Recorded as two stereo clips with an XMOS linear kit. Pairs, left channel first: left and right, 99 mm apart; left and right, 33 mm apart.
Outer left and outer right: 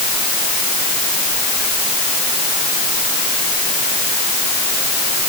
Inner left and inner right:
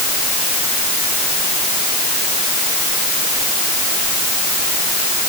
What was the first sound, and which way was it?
Only background noise.